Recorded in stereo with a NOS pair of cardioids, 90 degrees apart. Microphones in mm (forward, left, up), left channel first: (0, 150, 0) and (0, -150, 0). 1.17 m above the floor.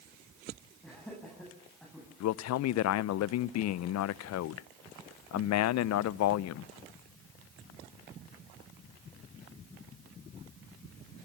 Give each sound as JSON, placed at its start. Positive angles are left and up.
{"t": 0.8, "sound": "laughter", "azimuth_deg": 5, "distance_m": 8.0}
{"t": 2.2, "sound": "a man speaking", "azimuth_deg": 70, "distance_m": 0.6}